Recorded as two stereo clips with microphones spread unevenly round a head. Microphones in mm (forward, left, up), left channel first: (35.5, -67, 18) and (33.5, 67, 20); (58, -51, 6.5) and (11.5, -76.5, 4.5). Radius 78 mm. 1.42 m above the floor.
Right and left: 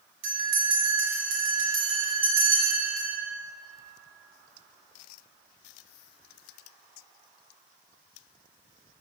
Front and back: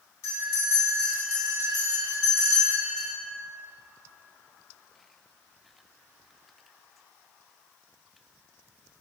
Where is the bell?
75° left, 2 m.